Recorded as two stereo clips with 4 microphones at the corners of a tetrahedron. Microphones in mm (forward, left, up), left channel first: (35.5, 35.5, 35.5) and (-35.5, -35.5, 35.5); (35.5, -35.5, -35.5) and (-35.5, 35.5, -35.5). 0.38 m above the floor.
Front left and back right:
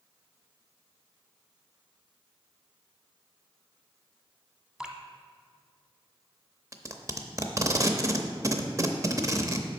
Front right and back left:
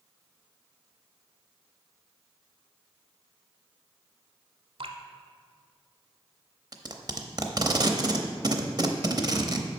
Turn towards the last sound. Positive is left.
turn(degrees=175)